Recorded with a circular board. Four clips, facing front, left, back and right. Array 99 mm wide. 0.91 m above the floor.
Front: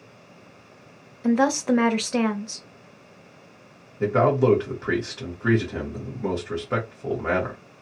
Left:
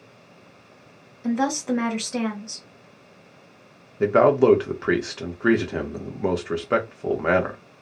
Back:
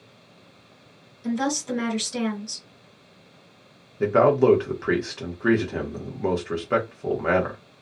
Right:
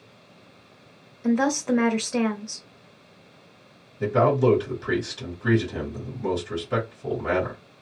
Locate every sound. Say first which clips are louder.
1.2 s a woman speaking: right 1 dB, front 6 dB; 5° right, 0.8 m
4.0 s a man speaking: left 4 dB, back 2 dB; 105° left, 1.2 m